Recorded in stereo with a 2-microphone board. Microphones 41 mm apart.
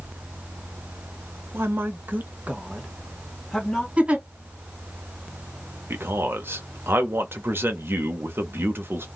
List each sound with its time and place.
1.5 s a woman speaking: 75° right (ahead or behind), 0.7 m; by 3.9 s 5° left (ahead or behind), 1.0 m
4.0 s a giggle: 30° right (ahead or behind), 1.8 m
5.9 s a man speaking: 70° right (ahead or behind), 0.7 m